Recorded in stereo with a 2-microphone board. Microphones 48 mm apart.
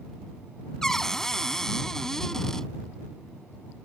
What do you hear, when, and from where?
0.8 s a cupboard door: 10° left (ahead or behind)